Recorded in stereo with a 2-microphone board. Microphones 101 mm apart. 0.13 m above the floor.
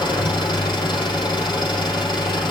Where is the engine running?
50° left (ahead or behind), 4 m.